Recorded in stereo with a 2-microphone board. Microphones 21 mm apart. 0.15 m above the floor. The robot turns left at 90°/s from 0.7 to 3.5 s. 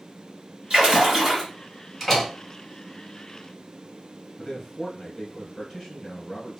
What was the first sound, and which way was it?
A splash, 100° right.